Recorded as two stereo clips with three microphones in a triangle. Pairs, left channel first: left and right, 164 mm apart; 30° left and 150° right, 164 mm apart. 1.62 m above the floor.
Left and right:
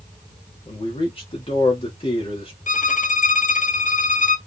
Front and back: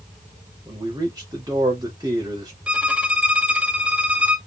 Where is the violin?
130° left, 0.6 m.